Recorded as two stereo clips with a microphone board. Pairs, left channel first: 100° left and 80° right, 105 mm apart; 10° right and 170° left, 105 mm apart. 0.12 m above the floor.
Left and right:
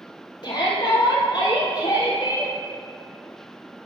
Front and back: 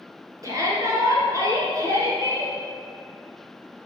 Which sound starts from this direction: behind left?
A shout, at 0.4 s.